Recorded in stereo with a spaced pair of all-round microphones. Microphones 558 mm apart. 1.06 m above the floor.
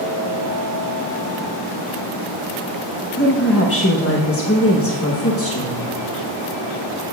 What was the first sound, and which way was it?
A woman speaking, 25° left (ahead or behind).